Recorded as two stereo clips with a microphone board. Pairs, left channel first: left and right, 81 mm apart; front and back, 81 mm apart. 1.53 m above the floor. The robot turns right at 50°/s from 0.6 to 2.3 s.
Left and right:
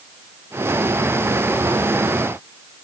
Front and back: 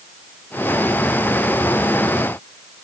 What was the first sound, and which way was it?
Only background noise.